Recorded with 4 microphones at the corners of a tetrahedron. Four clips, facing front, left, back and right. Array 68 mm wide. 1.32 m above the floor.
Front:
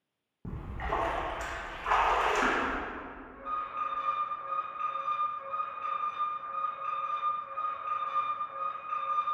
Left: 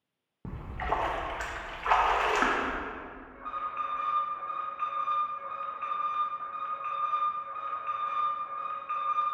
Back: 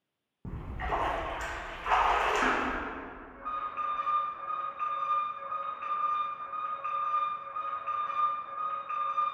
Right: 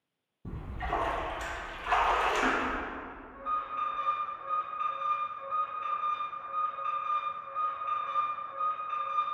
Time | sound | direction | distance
0.5 | a splash | 90° left | 1.3 m
3.3 | an alarm | 120° left | 1.8 m